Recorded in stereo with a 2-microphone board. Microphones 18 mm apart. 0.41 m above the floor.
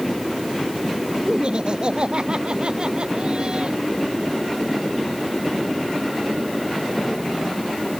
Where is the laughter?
50° right (ahead or behind).